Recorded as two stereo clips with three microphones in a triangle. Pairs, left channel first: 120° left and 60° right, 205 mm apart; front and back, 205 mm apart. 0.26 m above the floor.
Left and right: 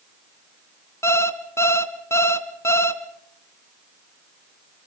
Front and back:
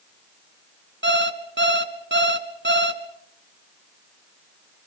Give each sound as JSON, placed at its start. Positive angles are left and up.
{"t": 1.0, "sound": "an alarm clock", "azimuth_deg": -165, "distance_m": 1.8}